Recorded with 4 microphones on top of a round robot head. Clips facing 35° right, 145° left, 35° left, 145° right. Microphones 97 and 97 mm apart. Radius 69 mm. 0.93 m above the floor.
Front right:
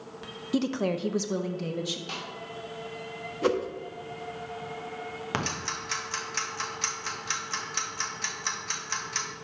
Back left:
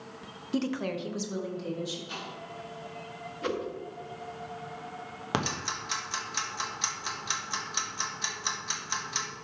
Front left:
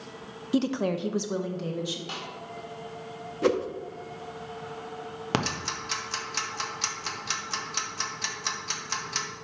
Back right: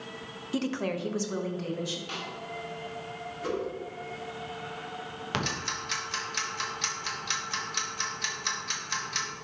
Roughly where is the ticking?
Left.